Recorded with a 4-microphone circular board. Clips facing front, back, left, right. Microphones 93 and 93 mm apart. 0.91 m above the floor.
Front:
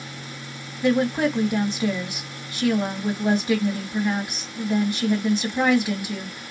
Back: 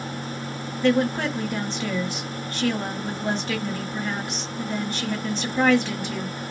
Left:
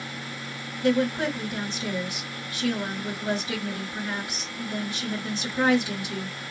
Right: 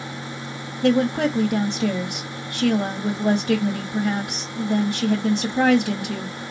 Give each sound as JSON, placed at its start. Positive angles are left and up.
{"t": 0.8, "sound": "a woman speaking", "azimuth_deg": -80, "distance_m": 1.8}